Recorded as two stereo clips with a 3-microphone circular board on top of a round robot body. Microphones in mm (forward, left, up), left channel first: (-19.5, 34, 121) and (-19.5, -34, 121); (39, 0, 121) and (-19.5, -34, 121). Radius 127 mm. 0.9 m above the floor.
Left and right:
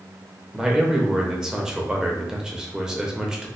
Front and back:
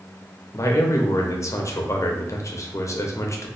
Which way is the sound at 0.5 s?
10° right.